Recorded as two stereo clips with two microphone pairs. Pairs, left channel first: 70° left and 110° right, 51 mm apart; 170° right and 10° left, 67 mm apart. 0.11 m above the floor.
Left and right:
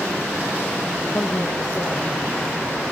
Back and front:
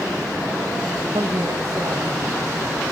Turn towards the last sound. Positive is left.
turn(degrees=40)